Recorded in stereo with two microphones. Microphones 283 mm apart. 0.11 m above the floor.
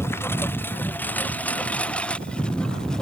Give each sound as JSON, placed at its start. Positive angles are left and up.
{"t": 0.0, "sound": "a lawn mower", "side_deg": 10}